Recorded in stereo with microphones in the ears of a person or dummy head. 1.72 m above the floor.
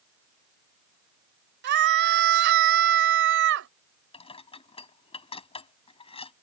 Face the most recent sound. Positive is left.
turn(degrees=25)  # may be behind; listen again after turning